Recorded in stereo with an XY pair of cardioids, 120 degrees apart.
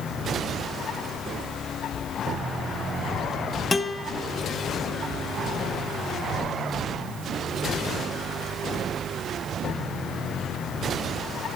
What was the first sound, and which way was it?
A guitar, 15° left.